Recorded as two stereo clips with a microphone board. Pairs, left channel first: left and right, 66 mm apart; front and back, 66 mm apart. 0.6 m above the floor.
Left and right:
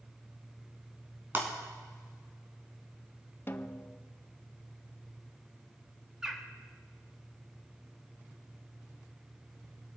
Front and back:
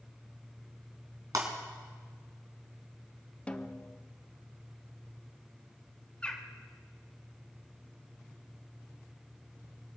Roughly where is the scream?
I don't hear a scream.